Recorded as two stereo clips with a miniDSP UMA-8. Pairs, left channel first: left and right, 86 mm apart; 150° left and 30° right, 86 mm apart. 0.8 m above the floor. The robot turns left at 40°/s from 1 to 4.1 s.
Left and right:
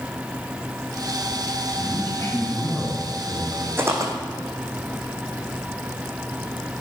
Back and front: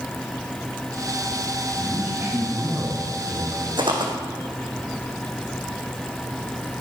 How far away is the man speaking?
About 5 m.